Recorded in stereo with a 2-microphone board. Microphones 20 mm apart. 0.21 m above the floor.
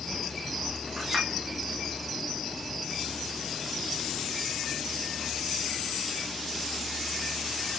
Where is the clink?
15° right (ahead or behind), 7.5 m.